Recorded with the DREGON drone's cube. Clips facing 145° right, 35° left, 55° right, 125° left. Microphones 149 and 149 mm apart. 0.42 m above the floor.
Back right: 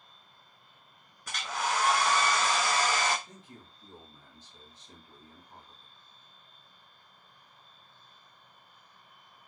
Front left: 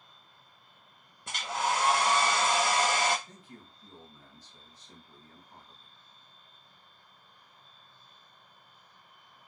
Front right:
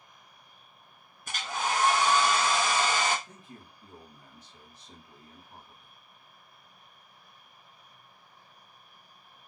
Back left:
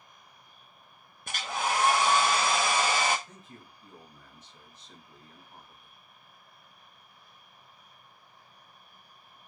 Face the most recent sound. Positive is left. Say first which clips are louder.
# even, front right 1 dB
turn(degrees=-95)